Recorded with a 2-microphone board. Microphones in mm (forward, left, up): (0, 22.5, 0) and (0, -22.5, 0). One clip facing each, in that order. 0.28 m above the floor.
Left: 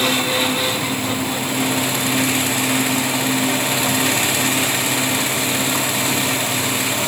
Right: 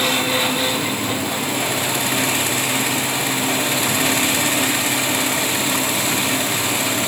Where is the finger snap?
I don't hear a finger snap.